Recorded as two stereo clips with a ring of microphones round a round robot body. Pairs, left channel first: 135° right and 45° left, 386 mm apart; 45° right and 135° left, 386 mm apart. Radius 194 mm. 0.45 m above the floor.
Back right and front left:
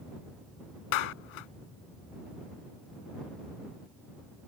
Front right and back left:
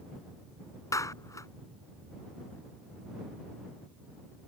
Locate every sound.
0.9 s a clap: 125° right